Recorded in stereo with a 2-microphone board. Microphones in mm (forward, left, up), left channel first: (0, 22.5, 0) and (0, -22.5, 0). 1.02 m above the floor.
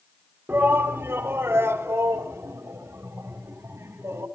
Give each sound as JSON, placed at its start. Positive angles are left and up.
{"t": 0.5, "sound": "a shout", "side_deg": -55, "distance_m": 1.7}